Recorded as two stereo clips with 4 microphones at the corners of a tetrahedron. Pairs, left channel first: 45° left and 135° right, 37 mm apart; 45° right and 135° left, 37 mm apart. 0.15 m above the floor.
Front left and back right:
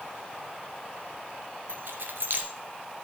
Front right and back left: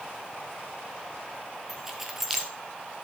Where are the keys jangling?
145° right, 1.6 m.